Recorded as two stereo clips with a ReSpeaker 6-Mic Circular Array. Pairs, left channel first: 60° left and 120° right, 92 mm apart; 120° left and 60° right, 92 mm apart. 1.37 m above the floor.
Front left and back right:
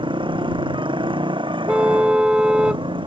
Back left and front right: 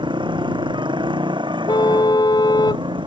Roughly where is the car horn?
Behind.